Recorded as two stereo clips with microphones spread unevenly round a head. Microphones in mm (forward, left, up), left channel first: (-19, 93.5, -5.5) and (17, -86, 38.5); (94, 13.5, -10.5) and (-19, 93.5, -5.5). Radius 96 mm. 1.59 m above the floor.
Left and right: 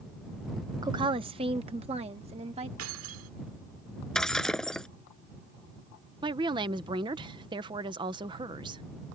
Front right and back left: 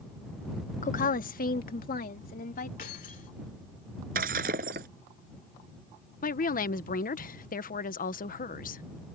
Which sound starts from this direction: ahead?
A woman speaking, at 6.2 s.